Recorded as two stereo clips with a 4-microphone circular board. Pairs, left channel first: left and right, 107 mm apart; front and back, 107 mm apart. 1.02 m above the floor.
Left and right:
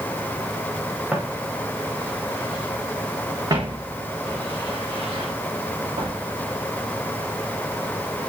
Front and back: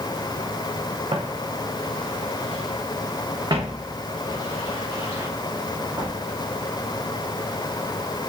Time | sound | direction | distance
1.1 | footsteps | 165° right | 4 m